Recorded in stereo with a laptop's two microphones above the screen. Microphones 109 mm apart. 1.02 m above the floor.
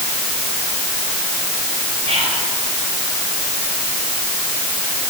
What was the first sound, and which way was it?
Whispering, 65° right (ahead or behind).